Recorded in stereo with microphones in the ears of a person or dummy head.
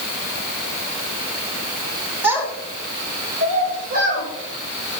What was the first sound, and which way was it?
A child speaking, 15° right (ahead or behind).